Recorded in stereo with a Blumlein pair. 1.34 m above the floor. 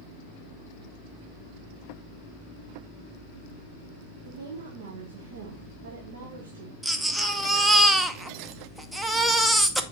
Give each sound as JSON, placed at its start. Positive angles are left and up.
{"t": 4.2, "sound": "a woman speaking", "azimuth_deg": -55, "distance_m": 1.2}
{"t": 6.8, "sound": "a baby crying", "azimuth_deg": -5, "distance_m": 0.7}